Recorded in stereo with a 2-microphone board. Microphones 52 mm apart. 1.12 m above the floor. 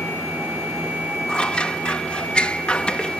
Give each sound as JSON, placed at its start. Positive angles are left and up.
{"t": 1.3, "sound": "scissors", "side_deg": 20}